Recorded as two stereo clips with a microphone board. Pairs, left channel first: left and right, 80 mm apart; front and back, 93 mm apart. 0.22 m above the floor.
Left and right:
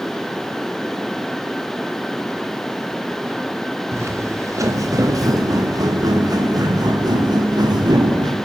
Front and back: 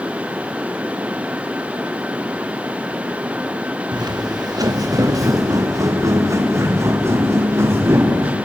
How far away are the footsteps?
About 2.0 m.